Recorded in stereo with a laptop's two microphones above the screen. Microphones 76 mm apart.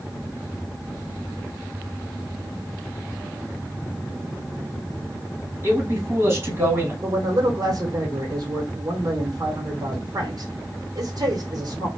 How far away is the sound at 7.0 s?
About 0.9 m.